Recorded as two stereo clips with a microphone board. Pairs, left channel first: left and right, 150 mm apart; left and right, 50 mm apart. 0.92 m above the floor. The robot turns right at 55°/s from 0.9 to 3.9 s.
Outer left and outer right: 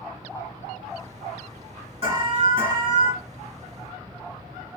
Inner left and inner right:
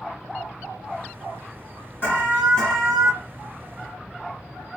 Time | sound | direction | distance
2.0 | an alarm | 130° left | 2.5 m